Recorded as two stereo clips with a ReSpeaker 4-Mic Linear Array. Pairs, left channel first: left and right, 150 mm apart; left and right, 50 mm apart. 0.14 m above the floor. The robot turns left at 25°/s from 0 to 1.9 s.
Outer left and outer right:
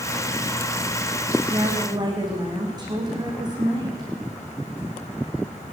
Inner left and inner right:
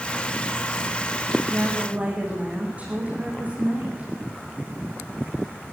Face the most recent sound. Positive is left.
turn(degrees=-25)  # may be behind; listen again after turning